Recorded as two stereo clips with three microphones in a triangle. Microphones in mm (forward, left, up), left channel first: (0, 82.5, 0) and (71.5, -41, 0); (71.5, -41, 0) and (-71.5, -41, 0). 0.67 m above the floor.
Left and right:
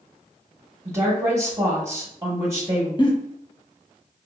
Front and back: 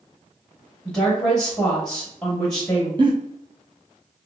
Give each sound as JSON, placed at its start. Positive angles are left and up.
{"t": 0.8, "sound": "a woman speaking", "azimuth_deg": -75, "distance_m": 0.9}
{"t": 3.0, "sound": "a giggle", "azimuth_deg": 150, "distance_m": 0.5}